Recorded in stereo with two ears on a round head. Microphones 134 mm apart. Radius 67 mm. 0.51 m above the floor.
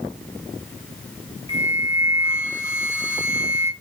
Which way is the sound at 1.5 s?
20° left (ahead or behind).